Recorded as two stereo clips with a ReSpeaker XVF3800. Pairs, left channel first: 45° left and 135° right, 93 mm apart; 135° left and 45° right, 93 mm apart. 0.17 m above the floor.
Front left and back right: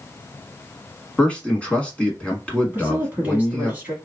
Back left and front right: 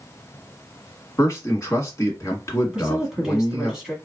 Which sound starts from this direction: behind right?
A woman speaking, at 2.7 s.